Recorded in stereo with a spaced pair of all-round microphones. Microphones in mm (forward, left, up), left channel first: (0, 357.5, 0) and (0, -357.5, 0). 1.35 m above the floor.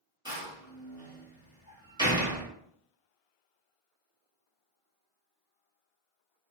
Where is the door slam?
5° right (ahead or behind), 1.2 m.